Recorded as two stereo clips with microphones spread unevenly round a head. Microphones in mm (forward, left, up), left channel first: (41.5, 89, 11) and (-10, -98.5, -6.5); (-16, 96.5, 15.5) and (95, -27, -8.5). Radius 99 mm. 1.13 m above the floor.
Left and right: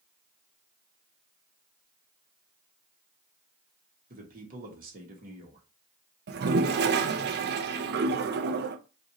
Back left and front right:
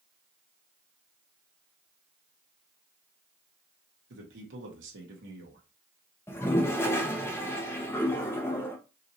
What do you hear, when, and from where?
4.1 s a man speaking: 60° right, 1.7 m
6.3 s a toilet flushing: 150° right, 0.5 m